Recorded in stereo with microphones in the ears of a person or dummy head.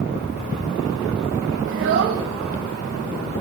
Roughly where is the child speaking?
Right.